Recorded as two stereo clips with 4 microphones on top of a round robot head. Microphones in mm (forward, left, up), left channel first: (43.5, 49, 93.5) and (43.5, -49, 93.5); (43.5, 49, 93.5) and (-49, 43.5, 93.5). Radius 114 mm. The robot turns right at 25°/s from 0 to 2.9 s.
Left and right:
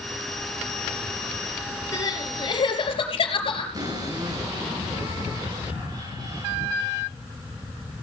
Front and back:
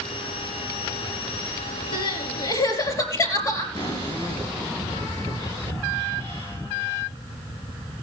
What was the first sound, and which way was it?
Crying, 30° left.